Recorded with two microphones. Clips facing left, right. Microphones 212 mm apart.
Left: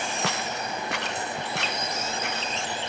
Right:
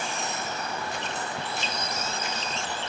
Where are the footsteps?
80° left; by 2.8 s 60° left (ahead or behind).